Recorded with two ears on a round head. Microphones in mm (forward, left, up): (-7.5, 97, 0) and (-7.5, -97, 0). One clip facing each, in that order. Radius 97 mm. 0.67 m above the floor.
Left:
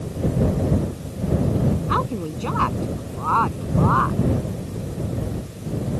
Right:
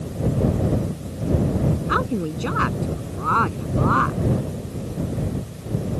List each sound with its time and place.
1.9 s a woman speaking: 15° right (ahead or behind); by 4.2 s 30° right (ahead or behind)